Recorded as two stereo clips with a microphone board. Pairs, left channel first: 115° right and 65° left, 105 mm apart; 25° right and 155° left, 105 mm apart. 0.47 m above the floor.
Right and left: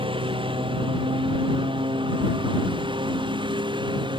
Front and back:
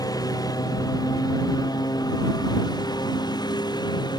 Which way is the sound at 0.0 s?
30° left.